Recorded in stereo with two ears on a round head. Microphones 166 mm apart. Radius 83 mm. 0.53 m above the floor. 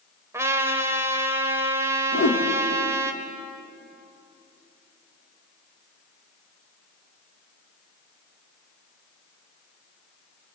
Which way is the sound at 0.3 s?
15° right (ahead or behind).